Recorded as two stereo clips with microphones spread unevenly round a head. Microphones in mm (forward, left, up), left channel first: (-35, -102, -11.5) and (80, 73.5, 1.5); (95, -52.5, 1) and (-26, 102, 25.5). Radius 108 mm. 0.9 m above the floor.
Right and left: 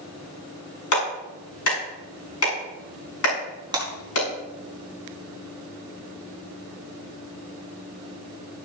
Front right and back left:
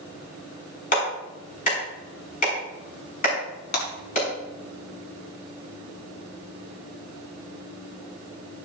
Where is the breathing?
No breathing in this recording.